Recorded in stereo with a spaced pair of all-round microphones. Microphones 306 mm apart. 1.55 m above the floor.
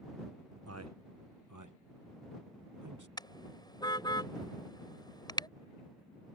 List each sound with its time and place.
0.7 s a man speaking: 50° right (ahead or behind); by 3.1 s 75° right (ahead or behind)
3.2 s a car horn: 15° left (ahead or behind)